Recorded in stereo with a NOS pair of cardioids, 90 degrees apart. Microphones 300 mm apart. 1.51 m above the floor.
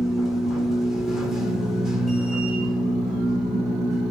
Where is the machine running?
Straight ahead, 1.8 m.